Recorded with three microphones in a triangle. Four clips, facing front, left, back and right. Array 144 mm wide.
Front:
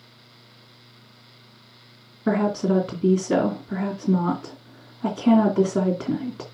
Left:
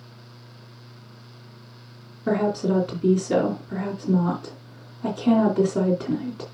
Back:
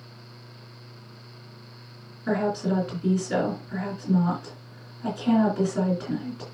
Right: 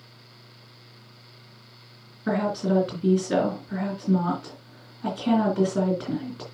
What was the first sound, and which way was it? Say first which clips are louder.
A woman speaking: left 2 dB, front 4 dB; 15° left.